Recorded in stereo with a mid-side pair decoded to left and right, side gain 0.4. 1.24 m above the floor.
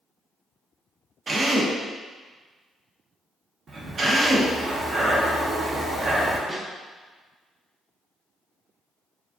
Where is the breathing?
50° right, 0.9 m.